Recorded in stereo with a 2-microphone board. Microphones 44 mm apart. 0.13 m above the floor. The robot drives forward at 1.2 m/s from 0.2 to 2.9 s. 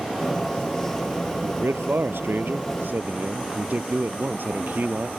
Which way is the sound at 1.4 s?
60° right (ahead or behind).